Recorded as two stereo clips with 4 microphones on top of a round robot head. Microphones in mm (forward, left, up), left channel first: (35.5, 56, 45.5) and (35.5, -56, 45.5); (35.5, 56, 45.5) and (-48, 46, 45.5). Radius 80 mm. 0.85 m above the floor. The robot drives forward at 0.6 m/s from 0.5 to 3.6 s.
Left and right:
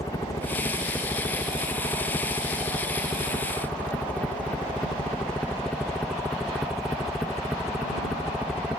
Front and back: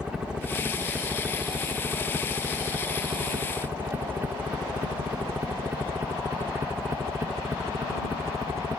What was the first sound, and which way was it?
A helicopter, 115° left.